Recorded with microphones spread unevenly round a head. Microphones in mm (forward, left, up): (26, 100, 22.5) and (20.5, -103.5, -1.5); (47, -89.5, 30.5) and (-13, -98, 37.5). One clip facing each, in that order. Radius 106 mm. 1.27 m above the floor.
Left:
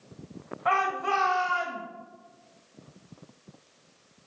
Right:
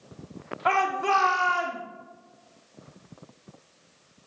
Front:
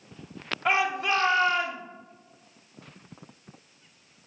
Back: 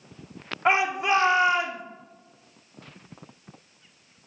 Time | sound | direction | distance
0.7 | a shout | 110° right | 2.5 m